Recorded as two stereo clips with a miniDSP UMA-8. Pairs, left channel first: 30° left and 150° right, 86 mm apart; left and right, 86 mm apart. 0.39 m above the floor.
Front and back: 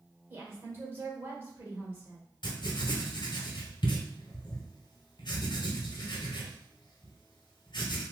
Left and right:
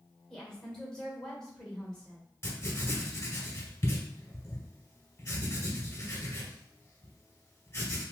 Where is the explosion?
I don't hear an explosion.